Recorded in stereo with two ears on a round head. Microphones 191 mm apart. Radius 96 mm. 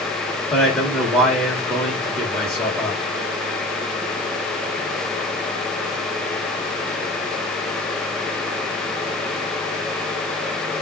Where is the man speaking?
Centre (ahead or behind), 1.3 m.